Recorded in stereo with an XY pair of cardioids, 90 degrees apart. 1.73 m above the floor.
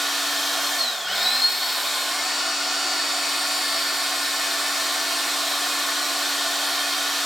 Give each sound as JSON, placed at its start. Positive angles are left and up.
{"t": 0.0, "sound": "a machine running", "azimuth_deg": -5, "distance_m": 0.7}